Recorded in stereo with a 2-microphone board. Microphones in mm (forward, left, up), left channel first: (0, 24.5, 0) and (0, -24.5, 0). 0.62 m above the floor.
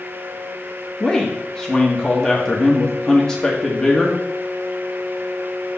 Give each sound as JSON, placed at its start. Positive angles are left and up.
{"t": 1.0, "sound": "a man speaking", "side_deg": 10, "distance_m": 1.2}